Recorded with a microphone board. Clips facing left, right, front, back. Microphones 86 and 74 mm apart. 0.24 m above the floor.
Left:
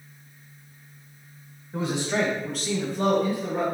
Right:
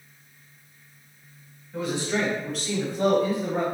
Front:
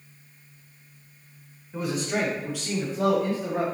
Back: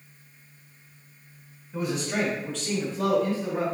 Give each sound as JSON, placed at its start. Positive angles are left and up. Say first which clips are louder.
{"t": 1.7, "sound": "a man speaking", "louder": "left 1 dB, even", "azimuth_deg": 90, "distance_m": 1.3}